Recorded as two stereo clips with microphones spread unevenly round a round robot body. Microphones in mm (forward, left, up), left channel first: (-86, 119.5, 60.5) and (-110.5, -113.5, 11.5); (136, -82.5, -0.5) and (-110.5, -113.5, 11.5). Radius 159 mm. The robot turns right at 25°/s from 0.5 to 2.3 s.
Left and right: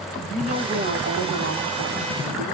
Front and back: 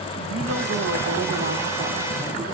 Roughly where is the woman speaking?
Behind right.